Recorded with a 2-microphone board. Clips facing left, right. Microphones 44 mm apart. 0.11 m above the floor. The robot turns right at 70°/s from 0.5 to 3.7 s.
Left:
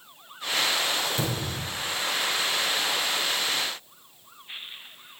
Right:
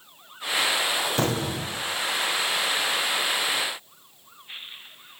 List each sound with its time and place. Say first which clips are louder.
1.2 s an explosion: right 4 dB; 120° right, 6 m; by 1.9 s 75° right, 6 m